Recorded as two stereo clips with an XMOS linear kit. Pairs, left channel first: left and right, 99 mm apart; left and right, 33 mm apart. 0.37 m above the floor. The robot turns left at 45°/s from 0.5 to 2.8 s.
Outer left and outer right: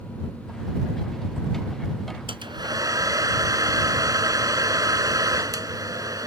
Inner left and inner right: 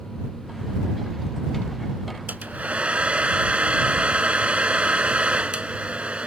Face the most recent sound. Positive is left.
turn(degrees=-35)  # may be behind; listen again after turning